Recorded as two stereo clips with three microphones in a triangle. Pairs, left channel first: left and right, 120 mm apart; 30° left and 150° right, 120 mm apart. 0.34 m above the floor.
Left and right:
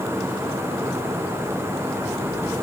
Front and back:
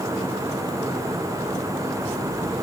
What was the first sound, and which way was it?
Only background noise.